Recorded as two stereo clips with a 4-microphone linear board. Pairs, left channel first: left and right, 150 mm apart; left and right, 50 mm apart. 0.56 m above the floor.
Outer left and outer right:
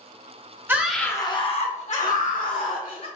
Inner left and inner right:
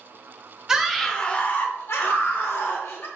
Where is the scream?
15° right (ahead or behind), 0.7 m; by 3.1 s 75° left (ahead or behind), 2 m.